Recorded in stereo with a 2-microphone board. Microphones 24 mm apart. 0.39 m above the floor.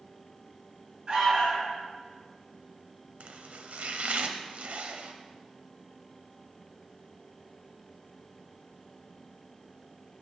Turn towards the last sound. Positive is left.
turn(degrees=-70)  # may be behind; listen again after turning